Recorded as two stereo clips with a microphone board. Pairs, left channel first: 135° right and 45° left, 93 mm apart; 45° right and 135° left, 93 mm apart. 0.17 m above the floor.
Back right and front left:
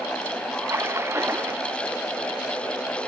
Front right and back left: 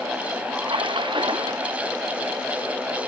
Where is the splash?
110° left.